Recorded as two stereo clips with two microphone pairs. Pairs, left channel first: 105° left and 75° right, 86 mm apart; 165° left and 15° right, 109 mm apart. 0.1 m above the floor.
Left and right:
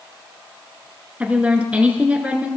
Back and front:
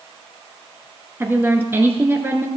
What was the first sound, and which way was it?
A woman speaking, 30° right.